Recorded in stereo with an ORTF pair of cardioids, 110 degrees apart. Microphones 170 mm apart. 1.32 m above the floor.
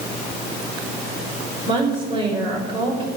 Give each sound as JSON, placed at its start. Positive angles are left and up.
{"t": 1.6, "sound": "a woman speaking", "azimuth_deg": -30, "distance_m": 5.5}